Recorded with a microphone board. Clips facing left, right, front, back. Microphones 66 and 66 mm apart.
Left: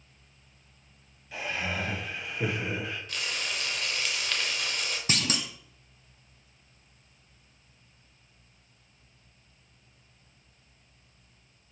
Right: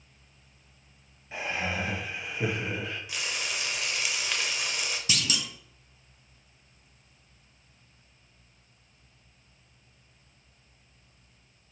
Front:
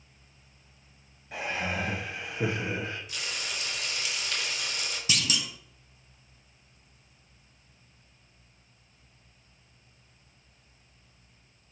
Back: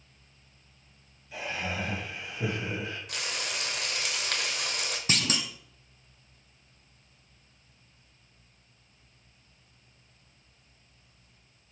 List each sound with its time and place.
1.3 s laughter: 30° right, 1.9 m; by 3.0 s 5° left, 1.5 m
3.1 s frying: 165° right, 0.9 m
5.1 s a clunk: 135° left, 0.5 m